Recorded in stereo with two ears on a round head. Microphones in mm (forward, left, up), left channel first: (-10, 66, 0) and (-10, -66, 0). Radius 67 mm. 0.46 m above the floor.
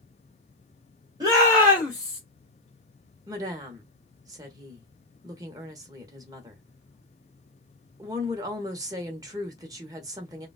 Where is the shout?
30° right (ahead or behind), 1.5 m; by 2.2 s 10° left (ahead or behind), 1.5 m.